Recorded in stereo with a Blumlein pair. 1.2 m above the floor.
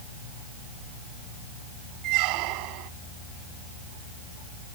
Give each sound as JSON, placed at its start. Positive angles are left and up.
{"t": 2.0, "sound": "a squeak", "azimuth_deg": -40}